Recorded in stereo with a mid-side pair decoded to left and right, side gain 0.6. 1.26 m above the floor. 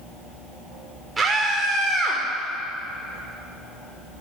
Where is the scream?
20° right, 4 m.